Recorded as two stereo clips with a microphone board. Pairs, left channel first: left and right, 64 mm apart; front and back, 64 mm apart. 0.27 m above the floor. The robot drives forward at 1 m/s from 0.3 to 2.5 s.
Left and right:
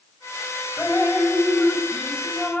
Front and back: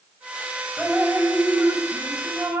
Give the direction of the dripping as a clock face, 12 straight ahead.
7 o'clock.